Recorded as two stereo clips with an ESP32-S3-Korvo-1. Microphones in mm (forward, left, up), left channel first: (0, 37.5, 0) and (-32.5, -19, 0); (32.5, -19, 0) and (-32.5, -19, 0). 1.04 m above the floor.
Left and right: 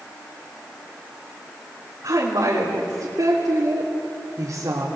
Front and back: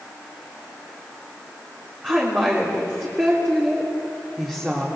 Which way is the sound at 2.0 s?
110° right.